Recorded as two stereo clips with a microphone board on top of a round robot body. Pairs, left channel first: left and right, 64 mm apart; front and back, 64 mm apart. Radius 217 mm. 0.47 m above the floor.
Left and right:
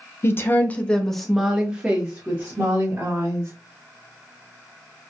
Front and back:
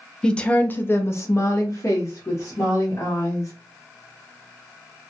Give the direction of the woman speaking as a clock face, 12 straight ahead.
10 o'clock.